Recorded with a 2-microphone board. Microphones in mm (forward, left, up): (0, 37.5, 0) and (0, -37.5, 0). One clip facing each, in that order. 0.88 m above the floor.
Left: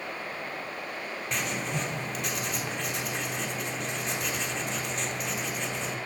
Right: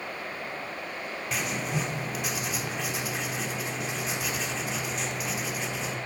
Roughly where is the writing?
Centre.